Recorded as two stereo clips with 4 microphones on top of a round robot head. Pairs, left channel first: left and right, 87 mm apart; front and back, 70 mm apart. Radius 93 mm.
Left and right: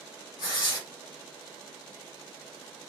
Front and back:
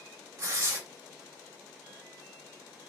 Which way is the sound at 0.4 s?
140° left.